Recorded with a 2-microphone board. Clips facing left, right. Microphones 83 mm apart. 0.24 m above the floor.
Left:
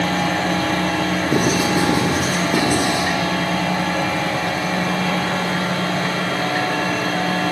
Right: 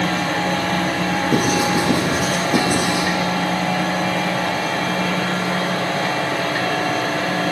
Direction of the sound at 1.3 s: Centre (ahead or behind).